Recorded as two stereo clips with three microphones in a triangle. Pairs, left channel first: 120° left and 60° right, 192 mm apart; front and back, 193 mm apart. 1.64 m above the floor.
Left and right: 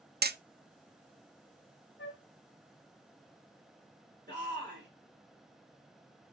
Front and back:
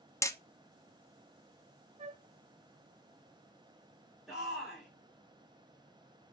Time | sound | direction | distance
0.2 | hammering | 70° right | 0.5 m
2.0 | a flute | 125° left | 1.0 m
4.3 | a shout | 90° right | 5 m